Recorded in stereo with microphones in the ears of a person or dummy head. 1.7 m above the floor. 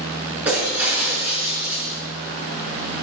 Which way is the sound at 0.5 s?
5° right (ahead or behind).